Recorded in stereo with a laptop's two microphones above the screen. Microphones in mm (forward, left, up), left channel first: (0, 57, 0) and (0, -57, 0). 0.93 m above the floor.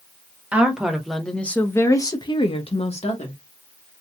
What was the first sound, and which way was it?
A woman speaking, 10° right (ahead or behind).